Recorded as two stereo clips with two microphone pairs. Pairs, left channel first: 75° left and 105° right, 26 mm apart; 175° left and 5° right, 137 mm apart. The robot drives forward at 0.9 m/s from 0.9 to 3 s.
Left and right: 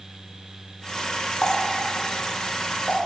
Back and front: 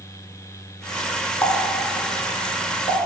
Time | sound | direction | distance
1.4 | a running tap | 110° left | 1.2 m